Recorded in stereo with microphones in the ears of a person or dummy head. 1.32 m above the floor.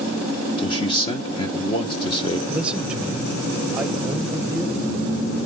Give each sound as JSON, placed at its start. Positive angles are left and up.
{"t": 0.6, "sound": "a man speaking", "side_deg": 25, "distance_m": 1.3}
{"t": 2.5, "sound": "a man speaking", "side_deg": -5, "distance_m": 1.1}